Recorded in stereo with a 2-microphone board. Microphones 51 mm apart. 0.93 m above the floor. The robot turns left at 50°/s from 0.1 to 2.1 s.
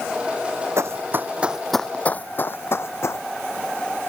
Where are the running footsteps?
65° right (ahead or behind); by 3.2 s 65° left (ahead or behind).